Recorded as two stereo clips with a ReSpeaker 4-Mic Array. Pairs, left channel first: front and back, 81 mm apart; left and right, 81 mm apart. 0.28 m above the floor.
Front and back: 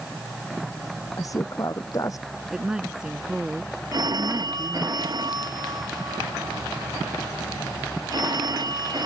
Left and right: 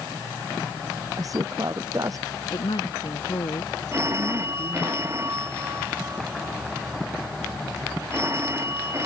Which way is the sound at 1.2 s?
45° right.